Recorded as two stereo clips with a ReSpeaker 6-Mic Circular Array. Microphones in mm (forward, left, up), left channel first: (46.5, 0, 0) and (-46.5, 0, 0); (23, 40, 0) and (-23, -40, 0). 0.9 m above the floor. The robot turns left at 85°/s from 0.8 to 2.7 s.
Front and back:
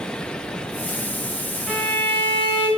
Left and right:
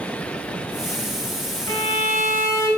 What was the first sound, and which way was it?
A violin, 95° left.